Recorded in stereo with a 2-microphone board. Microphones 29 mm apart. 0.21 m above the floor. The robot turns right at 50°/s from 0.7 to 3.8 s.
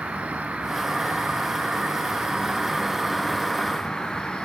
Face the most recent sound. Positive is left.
turn(degrees=25)